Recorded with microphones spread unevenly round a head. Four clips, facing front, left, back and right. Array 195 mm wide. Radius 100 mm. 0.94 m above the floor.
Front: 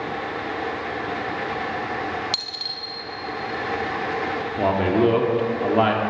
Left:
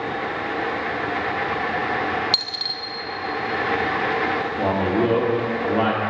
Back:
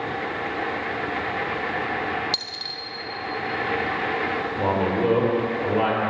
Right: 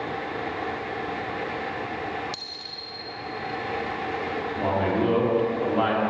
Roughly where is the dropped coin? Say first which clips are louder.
Left 8 dB, even; ahead left.